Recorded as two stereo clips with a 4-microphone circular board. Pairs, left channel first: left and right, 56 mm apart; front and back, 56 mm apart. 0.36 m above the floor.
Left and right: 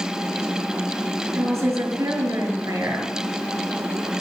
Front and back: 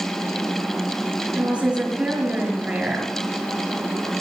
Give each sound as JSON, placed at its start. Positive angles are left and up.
{"t": 1.4, "sound": "a woman speaking", "azimuth_deg": -110, "distance_m": 5.5}